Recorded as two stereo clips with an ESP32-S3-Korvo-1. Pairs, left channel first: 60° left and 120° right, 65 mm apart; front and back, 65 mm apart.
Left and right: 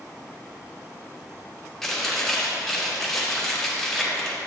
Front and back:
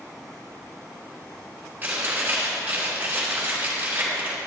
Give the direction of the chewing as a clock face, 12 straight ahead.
7 o'clock.